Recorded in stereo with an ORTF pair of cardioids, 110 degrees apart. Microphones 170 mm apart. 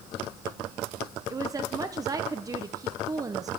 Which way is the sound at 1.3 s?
20° right.